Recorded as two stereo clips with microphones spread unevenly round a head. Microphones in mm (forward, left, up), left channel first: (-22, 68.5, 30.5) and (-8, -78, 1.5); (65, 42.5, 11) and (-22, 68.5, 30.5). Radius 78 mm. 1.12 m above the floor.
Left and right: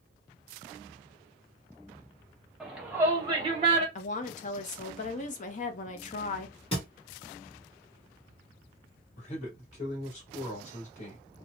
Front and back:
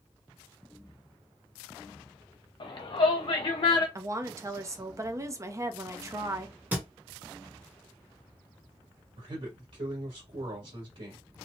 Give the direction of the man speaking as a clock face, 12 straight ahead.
7 o'clock.